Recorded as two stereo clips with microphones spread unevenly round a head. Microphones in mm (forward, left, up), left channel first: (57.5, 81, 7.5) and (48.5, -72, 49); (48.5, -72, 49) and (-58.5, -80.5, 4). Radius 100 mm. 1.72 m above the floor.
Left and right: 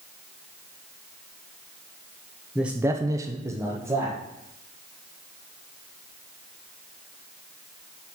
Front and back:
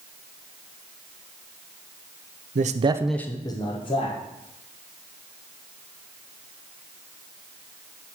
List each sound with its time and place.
2.5 s a man speaking: 170° right, 0.7 m; by 4.2 s 20° right, 1.8 m